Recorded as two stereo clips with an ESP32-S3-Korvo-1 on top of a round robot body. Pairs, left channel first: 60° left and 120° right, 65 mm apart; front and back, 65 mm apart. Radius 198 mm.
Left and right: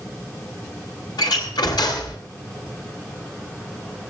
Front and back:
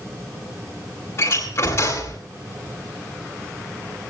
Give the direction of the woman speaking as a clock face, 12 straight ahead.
No woman speaking in this recording.